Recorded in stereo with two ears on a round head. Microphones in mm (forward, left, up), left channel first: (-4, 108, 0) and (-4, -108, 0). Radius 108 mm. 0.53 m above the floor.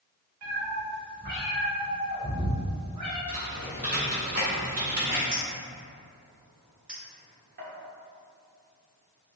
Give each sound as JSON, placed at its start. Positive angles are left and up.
{"t": 0.4, "sound": "a cat meowing", "side_deg": -70, "distance_m": 1.0}
{"t": 3.3, "sound": "typing on a keyboard", "side_deg": -35, "distance_m": 1.3}
{"t": 5.3, "sound": "a clink", "side_deg": -45, "distance_m": 1.0}
{"t": 6.9, "sound": "a clink", "side_deg": -5, "distance_m": 0.8}